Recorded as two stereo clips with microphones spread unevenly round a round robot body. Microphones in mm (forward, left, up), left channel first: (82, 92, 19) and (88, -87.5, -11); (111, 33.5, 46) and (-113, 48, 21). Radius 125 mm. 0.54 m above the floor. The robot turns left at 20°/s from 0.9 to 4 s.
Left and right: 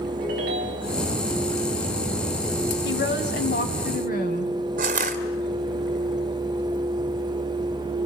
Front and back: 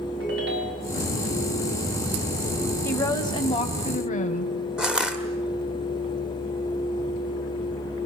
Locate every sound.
0.2 s a ringtone: 140° right, 3 m
2.9 s a woman speaking: 80° left, 3 m; by 4.5 s 55° left, 3 m
4.8 s crushing: 105° right, 1.5 m